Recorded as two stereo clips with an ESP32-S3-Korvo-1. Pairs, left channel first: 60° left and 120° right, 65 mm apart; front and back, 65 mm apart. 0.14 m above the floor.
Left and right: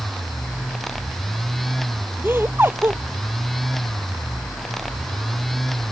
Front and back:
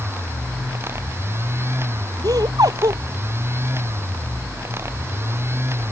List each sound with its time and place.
2.2 s laughter: 175° right